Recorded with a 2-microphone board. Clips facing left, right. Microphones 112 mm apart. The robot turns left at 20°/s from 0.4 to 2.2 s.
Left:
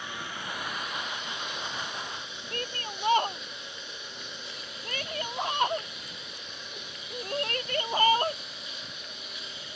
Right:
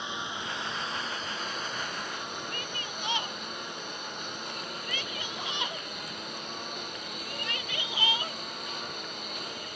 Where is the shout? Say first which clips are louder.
Left 2 dB; 45° left (ahead or behind).